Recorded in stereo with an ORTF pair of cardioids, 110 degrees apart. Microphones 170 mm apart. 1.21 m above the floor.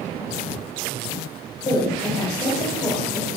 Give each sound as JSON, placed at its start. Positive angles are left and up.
{"t": 1.6, "sound": "a woman speaking", "azimuth_deg": 20, "distance_m": 0.9}